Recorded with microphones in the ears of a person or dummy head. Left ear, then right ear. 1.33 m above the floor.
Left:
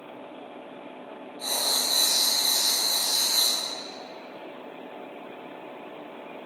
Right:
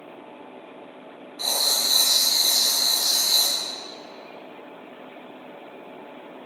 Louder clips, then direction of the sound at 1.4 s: Right 4 dB; 55° right (ahead or behind).